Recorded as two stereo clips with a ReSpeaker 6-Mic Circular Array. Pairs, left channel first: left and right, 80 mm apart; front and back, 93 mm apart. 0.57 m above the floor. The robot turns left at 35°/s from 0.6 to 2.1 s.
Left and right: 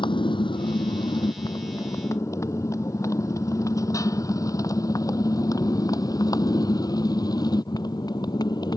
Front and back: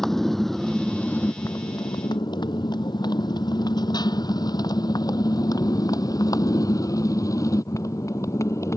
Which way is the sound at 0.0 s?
85° left.